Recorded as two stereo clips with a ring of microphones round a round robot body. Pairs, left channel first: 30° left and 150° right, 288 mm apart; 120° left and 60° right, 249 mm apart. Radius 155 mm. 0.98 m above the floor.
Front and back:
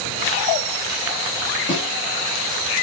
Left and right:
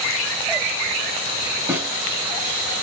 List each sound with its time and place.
1.7 s a snare drum: 15° left, 0.9 m